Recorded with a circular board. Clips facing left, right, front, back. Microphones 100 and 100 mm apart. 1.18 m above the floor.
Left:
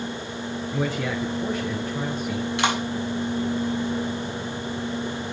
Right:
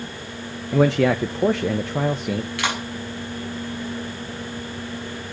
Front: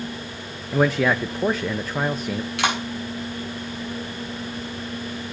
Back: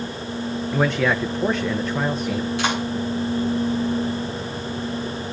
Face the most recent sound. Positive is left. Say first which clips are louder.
# left 3 dB, front 3 dB
turn(degrees=25)